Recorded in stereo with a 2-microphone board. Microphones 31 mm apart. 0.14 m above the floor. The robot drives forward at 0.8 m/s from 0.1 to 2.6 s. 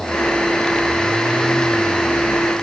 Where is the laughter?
I don't hear laughter.